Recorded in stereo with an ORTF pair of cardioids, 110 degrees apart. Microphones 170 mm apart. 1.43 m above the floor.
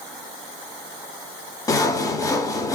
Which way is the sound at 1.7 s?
20° left.